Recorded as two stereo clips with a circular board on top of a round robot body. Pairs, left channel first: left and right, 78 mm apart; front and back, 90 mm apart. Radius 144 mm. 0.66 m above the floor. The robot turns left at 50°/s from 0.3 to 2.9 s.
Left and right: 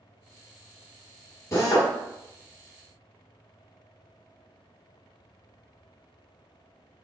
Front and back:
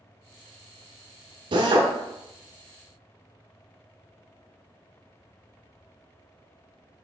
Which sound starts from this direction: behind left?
A drill, at 1.5 s.